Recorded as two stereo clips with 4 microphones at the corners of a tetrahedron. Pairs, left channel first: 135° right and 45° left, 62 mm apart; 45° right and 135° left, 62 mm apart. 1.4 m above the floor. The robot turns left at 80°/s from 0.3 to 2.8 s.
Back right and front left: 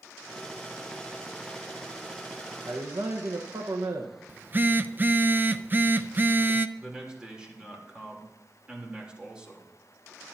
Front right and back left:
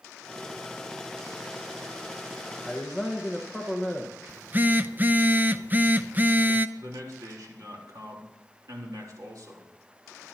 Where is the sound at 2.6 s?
50° left, 1.3 m; by 4.2 s 40° left, 1.3 m.